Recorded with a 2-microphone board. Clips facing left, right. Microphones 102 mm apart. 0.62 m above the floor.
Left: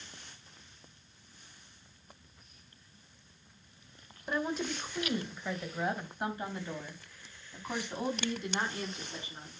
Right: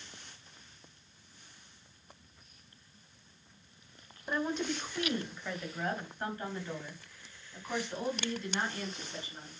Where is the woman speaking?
Centre (ahead or behind), 1.9 m; by 9.6 s 20° left (ahead or behind), 5 m.